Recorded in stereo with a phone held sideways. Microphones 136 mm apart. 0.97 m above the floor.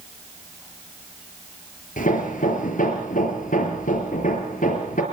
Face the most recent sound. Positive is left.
turn(degrees=70)  # may be behind; listen again after turning